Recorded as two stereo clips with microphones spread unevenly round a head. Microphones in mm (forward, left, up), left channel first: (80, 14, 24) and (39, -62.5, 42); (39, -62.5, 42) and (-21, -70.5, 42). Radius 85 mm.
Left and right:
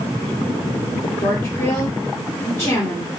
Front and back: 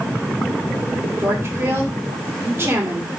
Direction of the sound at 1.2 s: 130° left.